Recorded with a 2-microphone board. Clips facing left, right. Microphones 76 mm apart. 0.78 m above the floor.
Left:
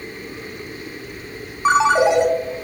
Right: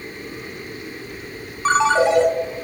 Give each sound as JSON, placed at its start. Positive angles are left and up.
{"t": 1.6, "sound": "a ringtone", "side_deg": 15, "distance_m": 0.5}